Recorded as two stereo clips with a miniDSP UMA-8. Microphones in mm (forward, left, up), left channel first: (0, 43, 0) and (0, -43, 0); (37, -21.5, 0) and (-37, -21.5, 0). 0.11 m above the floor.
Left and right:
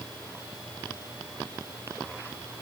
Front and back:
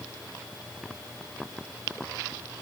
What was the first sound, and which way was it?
Only background noise.